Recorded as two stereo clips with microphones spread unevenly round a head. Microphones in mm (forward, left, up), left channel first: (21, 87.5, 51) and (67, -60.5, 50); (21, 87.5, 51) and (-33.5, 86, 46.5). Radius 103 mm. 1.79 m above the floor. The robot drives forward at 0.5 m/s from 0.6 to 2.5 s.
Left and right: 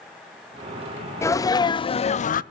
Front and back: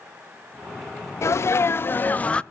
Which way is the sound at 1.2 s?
35° left.